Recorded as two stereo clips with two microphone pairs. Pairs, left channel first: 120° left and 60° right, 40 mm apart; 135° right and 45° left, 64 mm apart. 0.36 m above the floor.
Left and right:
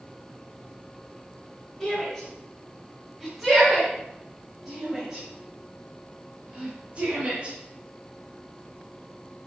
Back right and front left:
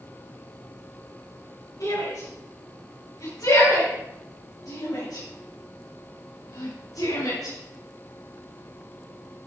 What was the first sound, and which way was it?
A shout, 160° right.